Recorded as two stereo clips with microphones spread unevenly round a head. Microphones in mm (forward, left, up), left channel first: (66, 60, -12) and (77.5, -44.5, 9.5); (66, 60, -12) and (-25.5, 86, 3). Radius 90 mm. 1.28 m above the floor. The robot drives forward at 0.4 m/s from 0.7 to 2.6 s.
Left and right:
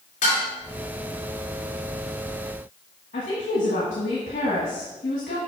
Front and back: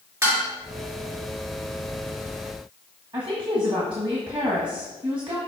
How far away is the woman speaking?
About 1.4 m.